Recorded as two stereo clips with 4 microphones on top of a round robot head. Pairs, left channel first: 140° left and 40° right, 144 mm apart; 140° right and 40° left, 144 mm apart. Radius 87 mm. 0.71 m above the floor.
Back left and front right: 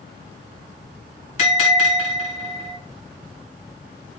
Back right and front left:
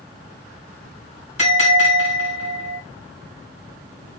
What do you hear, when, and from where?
1.4 s a bell: 175° left, 3 m